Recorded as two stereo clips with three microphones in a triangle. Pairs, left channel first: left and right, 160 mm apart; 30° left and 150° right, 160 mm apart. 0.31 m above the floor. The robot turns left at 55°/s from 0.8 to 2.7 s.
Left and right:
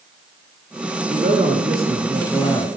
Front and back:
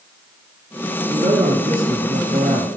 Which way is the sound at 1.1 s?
125° right.